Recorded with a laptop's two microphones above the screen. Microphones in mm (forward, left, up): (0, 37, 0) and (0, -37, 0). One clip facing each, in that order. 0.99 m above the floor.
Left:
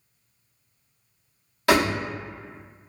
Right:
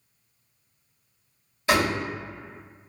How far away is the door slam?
About 0.9 m.